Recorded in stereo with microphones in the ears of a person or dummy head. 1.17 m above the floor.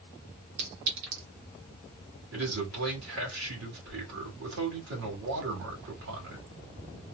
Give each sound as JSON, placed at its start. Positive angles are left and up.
{"t": 0.6, "sound": "a clink", "side_deg": -80, "distance_m": 1.3}
{"t": 2.3, "sound": "a man speaking", "side_deg": -80, "distance_m": 2.0}